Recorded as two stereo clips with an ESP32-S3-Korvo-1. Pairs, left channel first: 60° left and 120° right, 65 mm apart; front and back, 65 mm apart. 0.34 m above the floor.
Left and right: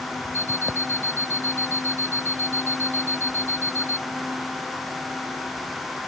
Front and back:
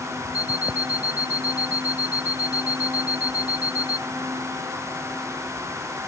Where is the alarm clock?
110° left.